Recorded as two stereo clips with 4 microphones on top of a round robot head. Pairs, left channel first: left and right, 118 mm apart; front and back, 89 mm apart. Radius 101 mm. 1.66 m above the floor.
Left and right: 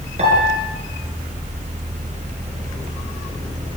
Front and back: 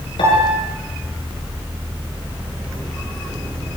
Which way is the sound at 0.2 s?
50° right.